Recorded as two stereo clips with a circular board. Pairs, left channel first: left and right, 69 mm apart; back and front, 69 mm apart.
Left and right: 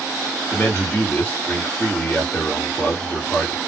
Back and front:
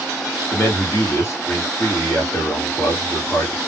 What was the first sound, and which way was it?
A man speaking, 150° left.